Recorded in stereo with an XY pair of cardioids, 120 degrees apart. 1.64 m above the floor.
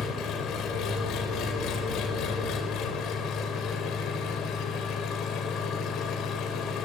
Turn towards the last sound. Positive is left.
turn(degrees=70)